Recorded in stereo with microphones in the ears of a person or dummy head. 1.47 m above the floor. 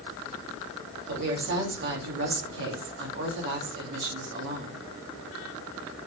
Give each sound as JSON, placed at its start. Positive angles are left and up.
{"t": 1.1, "sound": "a woman speaking", "side_deg": -65, "distance_m": 3.0}